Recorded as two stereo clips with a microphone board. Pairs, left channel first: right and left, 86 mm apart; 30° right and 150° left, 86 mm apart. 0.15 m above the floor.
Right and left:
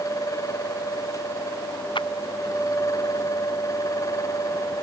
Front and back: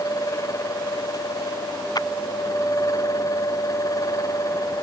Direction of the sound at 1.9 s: 70° right.